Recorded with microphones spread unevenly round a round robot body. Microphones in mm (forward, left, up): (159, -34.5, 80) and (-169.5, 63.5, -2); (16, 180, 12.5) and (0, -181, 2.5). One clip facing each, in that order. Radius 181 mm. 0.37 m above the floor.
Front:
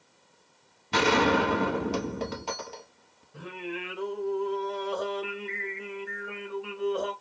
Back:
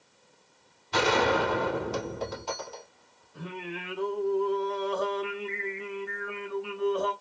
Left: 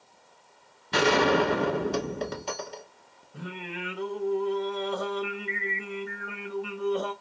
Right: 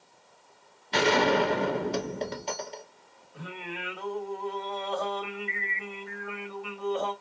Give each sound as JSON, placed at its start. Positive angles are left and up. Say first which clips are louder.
{"t": 0.9, "sound": "a gunshot", "louder": "front 2 dB, left 1 dB", "azimuth_deg": 15, "distance_m": 0.8}
{"t": 3.3, "sound": "singing", "louder": "front 2 dB, left 2 dB", "azimuth_deg": 15, "distance_m": 1.7}